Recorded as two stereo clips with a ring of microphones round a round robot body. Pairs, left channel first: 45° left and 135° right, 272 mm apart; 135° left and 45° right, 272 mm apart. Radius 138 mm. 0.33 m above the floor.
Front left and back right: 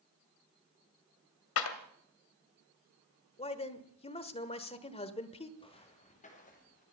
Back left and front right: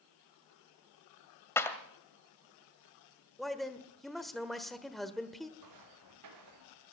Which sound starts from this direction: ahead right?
Footsteps, at 5.6 s.